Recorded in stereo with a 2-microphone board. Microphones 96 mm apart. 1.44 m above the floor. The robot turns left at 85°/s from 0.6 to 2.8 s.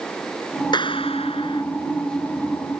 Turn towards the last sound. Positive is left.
turn(degrees=-45)